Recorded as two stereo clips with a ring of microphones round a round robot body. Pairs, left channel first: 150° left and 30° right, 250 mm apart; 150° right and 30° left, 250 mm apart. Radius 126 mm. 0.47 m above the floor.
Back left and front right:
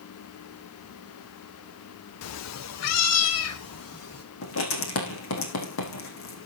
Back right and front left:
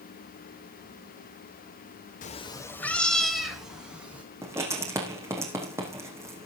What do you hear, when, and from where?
2.2 s a cat meowing: 155° left, 0.6 m; by 4.2 s 115° left, 3 m
4.4 s writing: 110° left, 4 m